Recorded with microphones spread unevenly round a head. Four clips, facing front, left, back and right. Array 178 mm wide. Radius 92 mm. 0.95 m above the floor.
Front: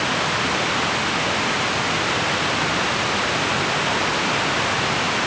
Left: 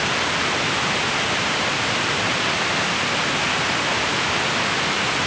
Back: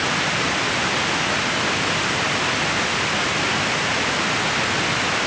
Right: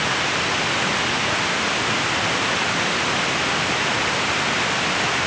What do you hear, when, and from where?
Only background noise.